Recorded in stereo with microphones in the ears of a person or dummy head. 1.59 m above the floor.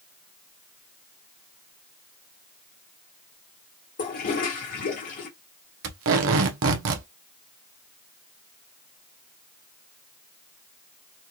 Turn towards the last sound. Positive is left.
turn(degrees=-70)  # may be behind; listen again after turning